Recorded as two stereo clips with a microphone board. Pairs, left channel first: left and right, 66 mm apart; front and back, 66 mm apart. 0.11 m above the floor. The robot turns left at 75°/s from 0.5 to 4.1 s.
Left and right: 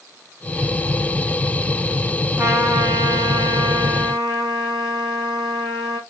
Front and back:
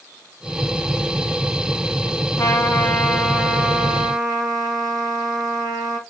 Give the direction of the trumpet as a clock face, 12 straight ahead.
1 o'clock.